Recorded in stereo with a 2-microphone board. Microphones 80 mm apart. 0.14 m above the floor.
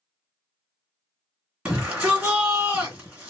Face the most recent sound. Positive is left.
turn(degrees=-10)  # may be behind; listen again after turning